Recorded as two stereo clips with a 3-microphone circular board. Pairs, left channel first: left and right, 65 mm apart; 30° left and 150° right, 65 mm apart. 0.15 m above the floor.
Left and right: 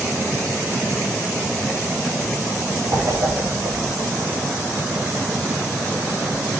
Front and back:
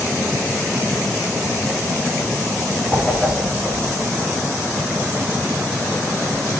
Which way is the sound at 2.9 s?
65° right.